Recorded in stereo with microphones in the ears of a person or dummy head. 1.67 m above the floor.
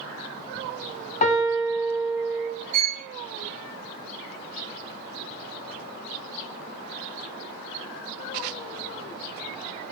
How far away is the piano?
About 1.3 m.